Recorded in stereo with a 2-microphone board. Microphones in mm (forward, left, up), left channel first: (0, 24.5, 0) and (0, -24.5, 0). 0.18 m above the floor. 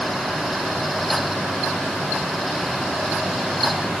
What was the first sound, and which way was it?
Only background noise.